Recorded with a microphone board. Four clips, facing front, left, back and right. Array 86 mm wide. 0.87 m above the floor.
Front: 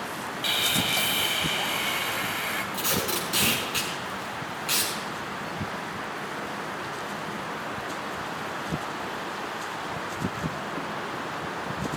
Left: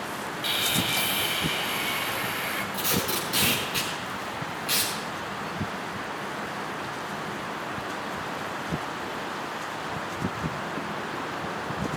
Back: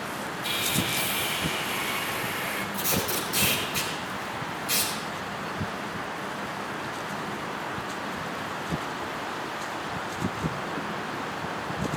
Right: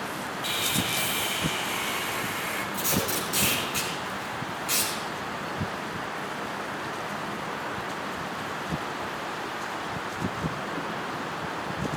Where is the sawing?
15° left, 1.7 m.